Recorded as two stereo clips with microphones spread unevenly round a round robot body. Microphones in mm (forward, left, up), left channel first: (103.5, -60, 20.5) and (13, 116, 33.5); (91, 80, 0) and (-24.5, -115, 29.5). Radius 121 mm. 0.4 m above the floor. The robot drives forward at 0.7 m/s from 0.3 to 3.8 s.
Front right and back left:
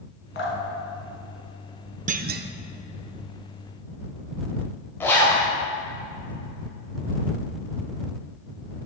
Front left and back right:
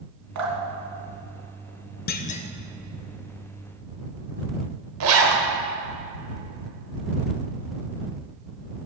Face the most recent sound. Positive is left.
turn(degrees=-140)